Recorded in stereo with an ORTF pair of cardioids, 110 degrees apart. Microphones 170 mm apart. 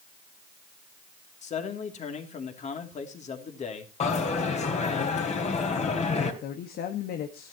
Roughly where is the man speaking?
Ahead left.